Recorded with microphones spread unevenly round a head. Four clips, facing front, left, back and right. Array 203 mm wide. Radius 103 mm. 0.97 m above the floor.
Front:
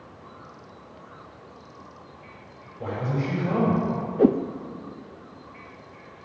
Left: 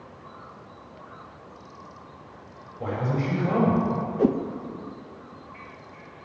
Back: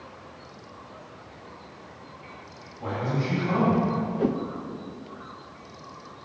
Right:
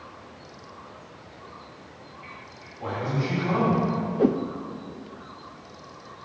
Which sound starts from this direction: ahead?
A whoosh, at 4.2 s.